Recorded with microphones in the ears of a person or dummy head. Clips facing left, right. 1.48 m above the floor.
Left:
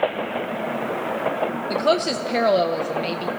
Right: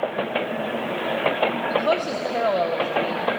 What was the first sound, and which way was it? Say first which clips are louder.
A woman speaking: left 2 dB; 30° left (ahead or behind).